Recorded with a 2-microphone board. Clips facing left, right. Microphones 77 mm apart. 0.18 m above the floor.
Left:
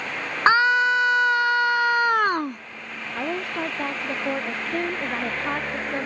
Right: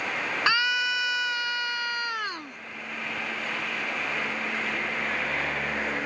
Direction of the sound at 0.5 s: 45° left (ahead or behind).